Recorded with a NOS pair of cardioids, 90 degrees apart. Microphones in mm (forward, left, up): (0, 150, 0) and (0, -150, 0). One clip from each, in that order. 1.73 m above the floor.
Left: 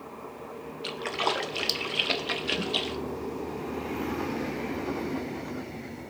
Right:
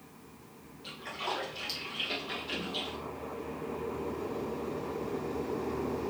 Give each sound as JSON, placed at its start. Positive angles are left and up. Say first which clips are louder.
{"t": 0.8, "sound": "a splash", "louder": "left 8 dB", "azimuth_deg": 60, "distance_m": 0.6}